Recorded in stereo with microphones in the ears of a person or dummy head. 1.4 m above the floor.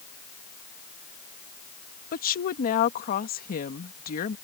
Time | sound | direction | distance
2.1 | a woman speaking | 50° left (ahead or behind) | ?